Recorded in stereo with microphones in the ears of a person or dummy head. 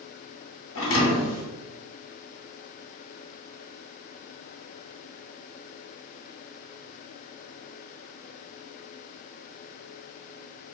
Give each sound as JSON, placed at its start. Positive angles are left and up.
{"t": 0.8, "sound": "a thud", "side_deg": 65, "distance_m": 2.5}